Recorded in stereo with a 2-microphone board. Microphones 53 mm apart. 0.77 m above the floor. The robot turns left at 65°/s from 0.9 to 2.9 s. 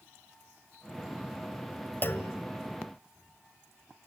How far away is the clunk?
About 1.5 m.